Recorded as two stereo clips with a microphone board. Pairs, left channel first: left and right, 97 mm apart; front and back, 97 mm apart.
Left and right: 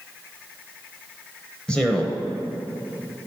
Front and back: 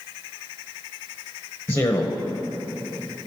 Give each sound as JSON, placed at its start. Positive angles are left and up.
{"t": 1.7, "sound": "a man speaking", "azimuth_deg": 20, "distance_m": 1.1}